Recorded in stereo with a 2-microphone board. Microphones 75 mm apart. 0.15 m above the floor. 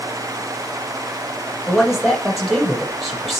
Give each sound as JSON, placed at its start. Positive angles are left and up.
{"t": 1.7, "sound": "a man speaking", "side_deg": -5, "distance_m": 4.5}